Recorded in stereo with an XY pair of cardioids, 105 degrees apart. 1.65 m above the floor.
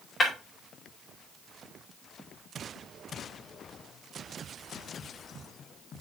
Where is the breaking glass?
30° left, 5.5 m.